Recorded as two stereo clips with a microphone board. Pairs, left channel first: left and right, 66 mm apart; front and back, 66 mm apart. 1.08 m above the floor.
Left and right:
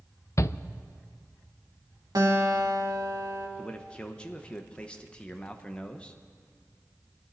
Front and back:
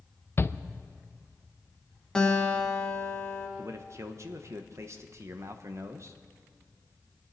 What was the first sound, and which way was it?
A shout, 50° left.